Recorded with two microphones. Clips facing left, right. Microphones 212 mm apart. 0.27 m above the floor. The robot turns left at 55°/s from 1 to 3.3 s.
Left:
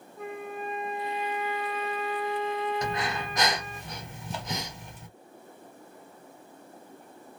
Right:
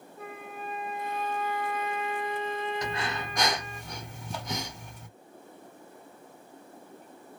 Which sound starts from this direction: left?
Breathing, at 2.8 s.